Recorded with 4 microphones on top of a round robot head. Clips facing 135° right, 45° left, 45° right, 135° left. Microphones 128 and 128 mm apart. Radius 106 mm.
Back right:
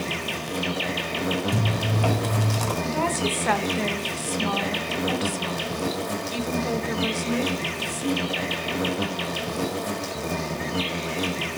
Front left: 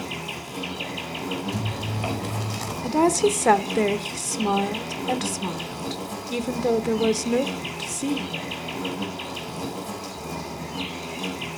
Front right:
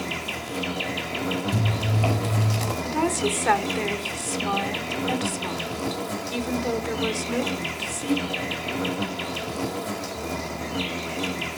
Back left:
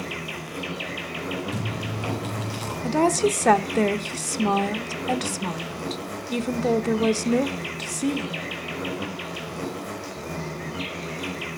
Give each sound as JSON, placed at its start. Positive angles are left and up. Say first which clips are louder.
{"t": 0.0, "sound": "an insect", "louder": "back right 3 dB, front right 2 dB", "azimuth_deg": -110, "distance_m": 1.6}
{"t": 1.5, "sound": "chewing", "louder": "back right 4 dB, front right 4 dB", "azimuth_deg": -95, "distance_m": 4.5}
{"t": 2.8, "sound": "a woman speaking", "louder": "front left 10 dB, back left 5 dB", "azimuth_deg": 90, "distance_m": 1.0}